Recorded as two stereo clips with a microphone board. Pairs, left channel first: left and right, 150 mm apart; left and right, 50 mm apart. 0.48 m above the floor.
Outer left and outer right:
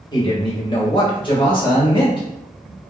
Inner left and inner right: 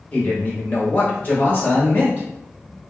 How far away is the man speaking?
About 0.9 m.